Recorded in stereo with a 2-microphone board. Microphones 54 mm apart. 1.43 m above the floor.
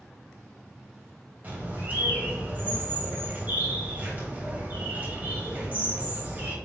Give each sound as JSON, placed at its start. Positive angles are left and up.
{"t": 1.4, "sound": "a bird", "side_deg": -30, "distance_m": 2.5}